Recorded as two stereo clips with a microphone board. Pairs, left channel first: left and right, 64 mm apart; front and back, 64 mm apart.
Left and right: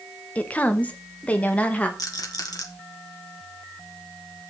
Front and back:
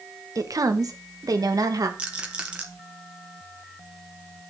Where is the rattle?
105° left, 1.8 m.